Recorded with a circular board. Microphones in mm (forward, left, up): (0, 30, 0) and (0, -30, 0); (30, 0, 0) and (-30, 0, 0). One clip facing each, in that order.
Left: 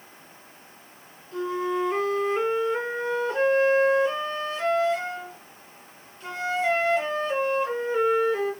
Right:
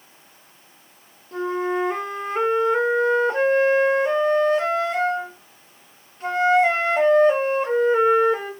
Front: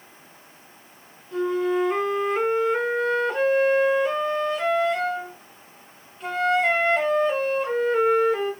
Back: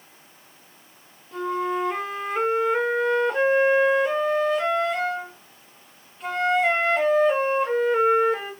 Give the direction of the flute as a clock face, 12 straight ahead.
3 o'clock.